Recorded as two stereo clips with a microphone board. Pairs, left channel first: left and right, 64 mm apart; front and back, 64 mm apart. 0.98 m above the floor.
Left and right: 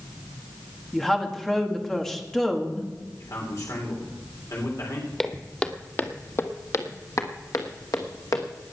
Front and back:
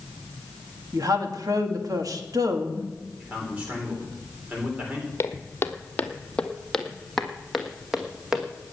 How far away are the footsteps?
About 1.2 m.